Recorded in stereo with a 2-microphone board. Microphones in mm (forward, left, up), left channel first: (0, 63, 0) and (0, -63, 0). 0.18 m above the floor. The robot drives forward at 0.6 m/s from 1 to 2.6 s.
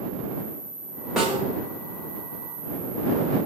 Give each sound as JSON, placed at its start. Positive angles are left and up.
{"t": 1.2, "sound": "a snare drum", "side_deg": 0, "distance_m": 8.0}